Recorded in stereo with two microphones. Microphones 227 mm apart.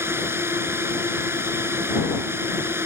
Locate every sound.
0.0 s a drone: 10° right (ahead or behind)